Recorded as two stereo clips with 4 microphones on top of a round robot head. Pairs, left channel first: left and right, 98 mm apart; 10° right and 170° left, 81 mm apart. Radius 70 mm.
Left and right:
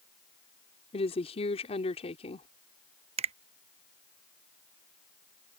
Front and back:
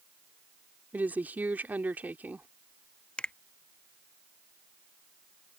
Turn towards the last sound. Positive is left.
turn(degrees=-90)